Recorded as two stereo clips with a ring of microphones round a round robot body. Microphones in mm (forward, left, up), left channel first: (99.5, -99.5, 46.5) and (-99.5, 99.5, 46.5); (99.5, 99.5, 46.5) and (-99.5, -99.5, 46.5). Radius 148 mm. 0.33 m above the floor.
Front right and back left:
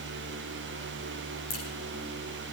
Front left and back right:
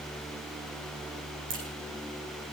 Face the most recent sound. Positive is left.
turn(degrees=-85)